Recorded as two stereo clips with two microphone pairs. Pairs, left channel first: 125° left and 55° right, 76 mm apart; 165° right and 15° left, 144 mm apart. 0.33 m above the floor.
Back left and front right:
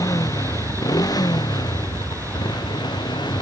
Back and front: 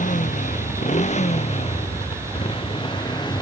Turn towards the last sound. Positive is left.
turn(degrees=135)